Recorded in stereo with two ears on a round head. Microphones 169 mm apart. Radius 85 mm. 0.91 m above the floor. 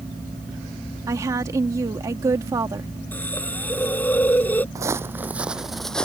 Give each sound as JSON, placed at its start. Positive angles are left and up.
{"t": 1.1, "sound": "a woman speaking", "side_deg": -20}
{"t": 3.1, "sound": "a hiss", "side_deg": 10}
{"t": 4.8, "sound": "footsteps", "side_deg": -20}